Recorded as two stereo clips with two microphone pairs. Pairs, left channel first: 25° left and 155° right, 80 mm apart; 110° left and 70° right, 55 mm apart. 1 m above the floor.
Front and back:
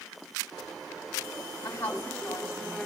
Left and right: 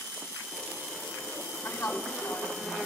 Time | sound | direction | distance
1.6 | a woman speaking | 85° left | 6.5 m